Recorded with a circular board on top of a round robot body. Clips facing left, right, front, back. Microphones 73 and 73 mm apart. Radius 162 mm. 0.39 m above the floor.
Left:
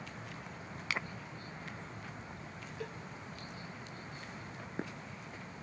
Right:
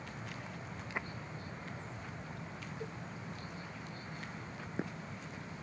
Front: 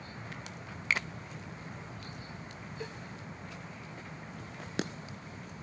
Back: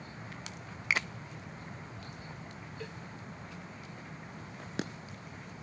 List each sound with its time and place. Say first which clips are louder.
0.9 s a finger snap: left 3 dB, back 1 dB; 95° left
2.8 s a cowbell: left 2 dB, front 2 dB; 70° left